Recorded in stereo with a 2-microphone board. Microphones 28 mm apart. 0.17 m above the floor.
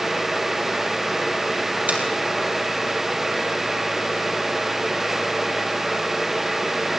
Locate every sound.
1.9 s a finger snap: 75° right (ahead or behind), 3.5 m